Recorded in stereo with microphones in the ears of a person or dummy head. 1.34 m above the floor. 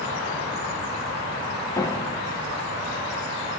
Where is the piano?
15° left (ahead or behind), 0.9 m.